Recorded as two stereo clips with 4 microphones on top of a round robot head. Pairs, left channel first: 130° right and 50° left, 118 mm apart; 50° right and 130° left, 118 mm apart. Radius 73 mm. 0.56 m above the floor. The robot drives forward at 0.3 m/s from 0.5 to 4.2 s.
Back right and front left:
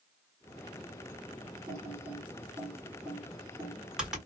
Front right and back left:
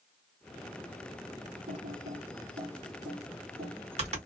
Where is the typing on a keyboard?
110° left, 1.4 m; by 4.2 s 140° left, 1.8 m.